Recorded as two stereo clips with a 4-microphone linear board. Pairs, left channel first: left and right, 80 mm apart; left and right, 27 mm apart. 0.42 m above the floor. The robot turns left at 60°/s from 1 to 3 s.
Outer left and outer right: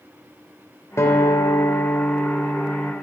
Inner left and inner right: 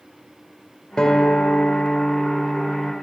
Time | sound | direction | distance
1.0 | a guitar | 115° left | 1.8 m